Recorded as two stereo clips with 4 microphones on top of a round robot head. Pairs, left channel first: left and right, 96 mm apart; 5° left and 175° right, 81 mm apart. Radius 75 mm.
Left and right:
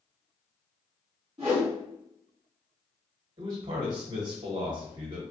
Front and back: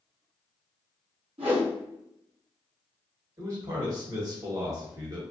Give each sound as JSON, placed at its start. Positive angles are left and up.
{"t": 1.4, "sound": "a whoosh", "azimuth_deg": -145, "distance_m": 0.9}
{"t": 3.4, "sound": "a man speaking", "azimuth_deg": -130, "distance_m": 1.1}